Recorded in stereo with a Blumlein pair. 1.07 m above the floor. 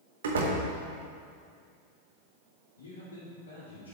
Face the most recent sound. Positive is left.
turn(degrees=65)